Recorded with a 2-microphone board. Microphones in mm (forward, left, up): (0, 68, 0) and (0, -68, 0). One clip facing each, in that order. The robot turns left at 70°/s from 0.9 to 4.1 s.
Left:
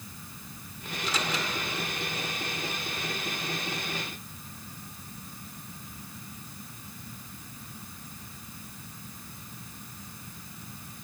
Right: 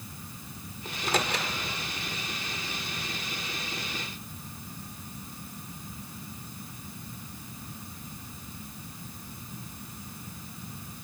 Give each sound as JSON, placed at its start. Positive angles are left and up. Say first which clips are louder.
{"t": 0.8, "sound": "a microwave", "louder": "right 3 dB", "side_deg": -40, "distance_m": 1.9}